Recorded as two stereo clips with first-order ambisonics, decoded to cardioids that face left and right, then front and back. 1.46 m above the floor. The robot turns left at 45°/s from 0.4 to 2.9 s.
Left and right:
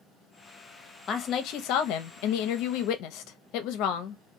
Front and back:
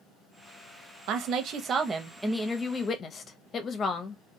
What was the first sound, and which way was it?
A woman speaking, 150° left.